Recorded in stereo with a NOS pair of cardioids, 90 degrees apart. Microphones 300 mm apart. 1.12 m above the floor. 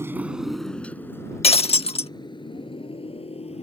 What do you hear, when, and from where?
0.0 s a motorcycle: 10° right; by 3.6 s 20° left
1.4 s breaking glass: 20° left